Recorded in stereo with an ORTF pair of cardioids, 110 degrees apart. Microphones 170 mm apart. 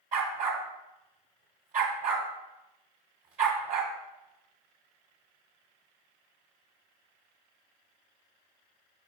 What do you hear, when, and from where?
0.1 s a dog barking: 60° right, 2 m